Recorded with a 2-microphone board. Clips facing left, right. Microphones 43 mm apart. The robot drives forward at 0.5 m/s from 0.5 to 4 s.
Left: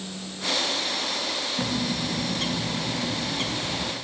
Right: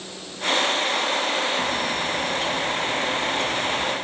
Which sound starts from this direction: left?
A bird, at 1.6 s.